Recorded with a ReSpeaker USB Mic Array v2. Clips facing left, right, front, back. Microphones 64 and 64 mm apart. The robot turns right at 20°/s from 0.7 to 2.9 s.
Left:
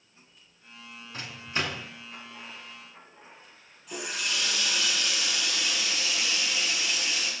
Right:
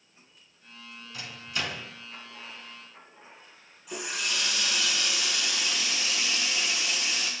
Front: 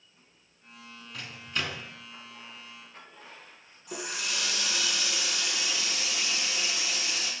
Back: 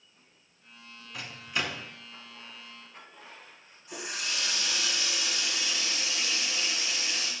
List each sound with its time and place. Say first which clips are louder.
1.1 s a microwave: left 3 dB, back 1 dB; 100° left, 1.1 m; by 1.9 s 115° left, 1.1 m
3.9 s a running tap: even, front 1 dB; 5° right, 2.5 m